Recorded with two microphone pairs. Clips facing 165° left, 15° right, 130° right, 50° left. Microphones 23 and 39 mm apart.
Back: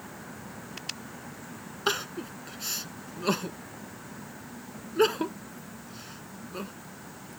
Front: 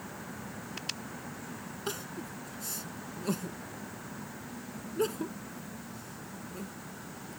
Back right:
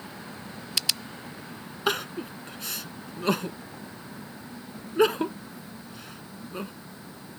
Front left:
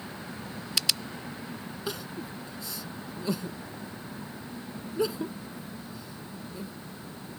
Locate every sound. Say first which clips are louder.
1.9 s crying: back 10 dB, back right 9 dB; 150° right